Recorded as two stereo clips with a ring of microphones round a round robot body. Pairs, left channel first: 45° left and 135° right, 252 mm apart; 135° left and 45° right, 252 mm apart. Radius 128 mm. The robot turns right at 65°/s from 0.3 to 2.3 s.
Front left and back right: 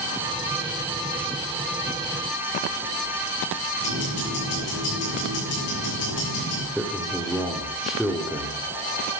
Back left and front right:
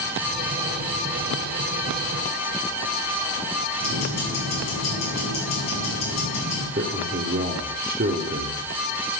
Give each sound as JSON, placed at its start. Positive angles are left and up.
{"t": 3.8, "sound": "ticking", "azimuth_deg": 80, "distance_m": 7.0}
{"t": 6.8, "sound": "a man speaking", "azimuth_deg": -45, "distance_m": 1.5}